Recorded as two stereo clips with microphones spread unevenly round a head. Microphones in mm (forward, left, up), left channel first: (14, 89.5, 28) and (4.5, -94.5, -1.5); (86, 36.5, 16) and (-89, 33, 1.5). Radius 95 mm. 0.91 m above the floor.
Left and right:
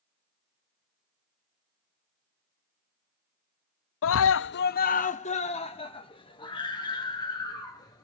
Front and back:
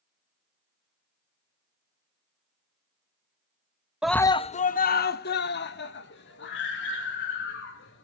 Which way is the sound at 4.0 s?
100° left.